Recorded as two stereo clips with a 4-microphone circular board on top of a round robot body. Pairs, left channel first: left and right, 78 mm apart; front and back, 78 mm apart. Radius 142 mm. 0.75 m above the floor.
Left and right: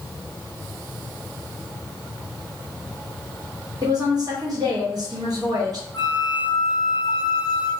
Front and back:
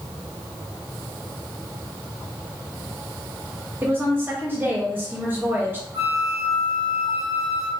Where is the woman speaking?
120° right, 1.3 m.